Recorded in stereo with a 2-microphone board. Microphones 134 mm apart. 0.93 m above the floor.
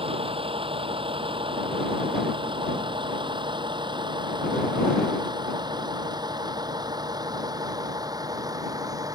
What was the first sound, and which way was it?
A vehicle, 45° right (ahead or behind).